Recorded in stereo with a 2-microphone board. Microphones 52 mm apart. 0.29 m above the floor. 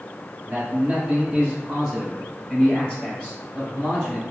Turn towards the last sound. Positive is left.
turn(degrees=35)  # may be behind; listen again after turning